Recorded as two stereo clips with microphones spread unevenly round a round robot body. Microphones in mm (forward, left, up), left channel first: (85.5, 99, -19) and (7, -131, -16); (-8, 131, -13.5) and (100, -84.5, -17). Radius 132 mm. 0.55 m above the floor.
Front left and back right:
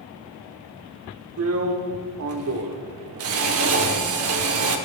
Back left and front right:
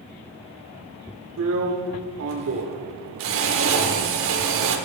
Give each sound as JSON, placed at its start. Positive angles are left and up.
{"t": 1.4, "sound": "a drill", "azimuth_deg": -95, "distance_m": 1.1}